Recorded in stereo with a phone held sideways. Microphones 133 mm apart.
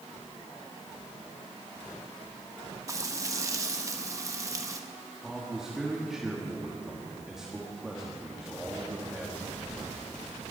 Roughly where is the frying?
Right.